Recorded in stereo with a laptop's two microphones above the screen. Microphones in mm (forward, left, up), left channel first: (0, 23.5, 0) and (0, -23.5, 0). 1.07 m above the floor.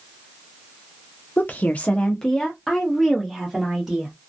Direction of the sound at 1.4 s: 40° left (ahead or behind).